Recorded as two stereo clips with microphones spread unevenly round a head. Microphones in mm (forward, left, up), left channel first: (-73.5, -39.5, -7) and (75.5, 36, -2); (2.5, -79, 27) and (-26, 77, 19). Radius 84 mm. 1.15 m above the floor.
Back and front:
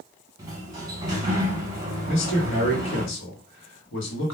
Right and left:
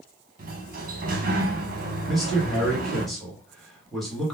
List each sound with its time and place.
0.4 s a sliding door: 95° left, 0.8 m
2.1 s a man speaking: 170° right, 1.3 m